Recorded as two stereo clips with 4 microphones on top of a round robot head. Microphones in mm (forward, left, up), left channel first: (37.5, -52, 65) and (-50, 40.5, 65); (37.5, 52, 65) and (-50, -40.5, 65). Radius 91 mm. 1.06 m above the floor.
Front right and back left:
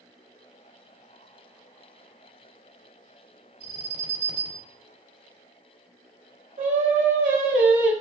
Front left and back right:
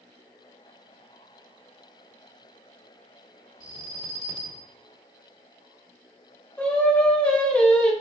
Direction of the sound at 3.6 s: 175° left.